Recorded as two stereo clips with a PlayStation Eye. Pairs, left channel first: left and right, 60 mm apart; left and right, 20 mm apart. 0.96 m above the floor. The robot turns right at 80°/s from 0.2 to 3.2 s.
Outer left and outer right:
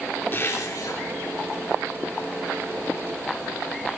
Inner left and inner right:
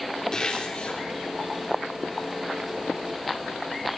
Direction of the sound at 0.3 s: 40° left.